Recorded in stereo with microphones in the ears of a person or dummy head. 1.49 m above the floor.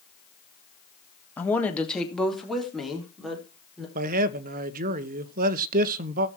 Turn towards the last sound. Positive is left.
turn(degrees=-40)  # may be behind; listen again after turning